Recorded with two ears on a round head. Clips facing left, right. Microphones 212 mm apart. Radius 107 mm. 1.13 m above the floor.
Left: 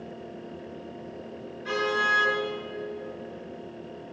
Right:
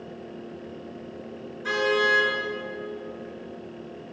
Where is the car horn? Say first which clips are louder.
Right 5 dB; 70° right (ahead or behind), 9 m.